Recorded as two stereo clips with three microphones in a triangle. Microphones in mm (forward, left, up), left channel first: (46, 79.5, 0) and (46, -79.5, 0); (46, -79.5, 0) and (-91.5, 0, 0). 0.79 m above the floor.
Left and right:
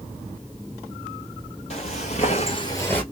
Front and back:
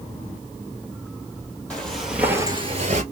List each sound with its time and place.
1.7 s footsteps: 50° left, 1.6 m; by 3.0 s 170° left, 1.1 m